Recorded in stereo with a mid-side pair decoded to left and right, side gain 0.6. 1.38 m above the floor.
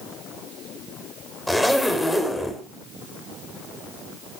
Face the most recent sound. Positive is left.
turn(degrees=5)